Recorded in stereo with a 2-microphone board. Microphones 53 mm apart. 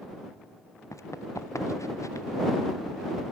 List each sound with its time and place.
0.9 s running footsteps: 85° left